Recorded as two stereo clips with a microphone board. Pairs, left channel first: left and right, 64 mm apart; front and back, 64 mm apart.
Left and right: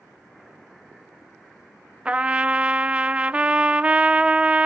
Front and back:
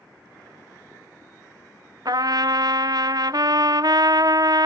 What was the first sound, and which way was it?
A trumpet, 160° right.